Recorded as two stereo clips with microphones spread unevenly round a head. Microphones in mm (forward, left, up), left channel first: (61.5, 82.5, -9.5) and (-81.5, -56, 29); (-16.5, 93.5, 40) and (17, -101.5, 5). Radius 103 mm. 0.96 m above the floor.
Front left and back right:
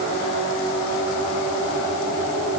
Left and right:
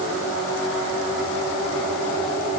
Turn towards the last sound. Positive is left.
No sound to turn to.